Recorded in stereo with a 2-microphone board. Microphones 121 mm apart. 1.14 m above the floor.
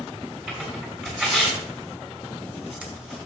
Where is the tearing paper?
10° right (ahead or behind), 3.5 m.